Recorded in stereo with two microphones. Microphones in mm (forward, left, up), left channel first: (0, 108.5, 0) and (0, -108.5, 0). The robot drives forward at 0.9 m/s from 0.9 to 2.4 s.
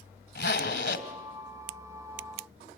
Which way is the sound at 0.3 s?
50° left (ahead or behind).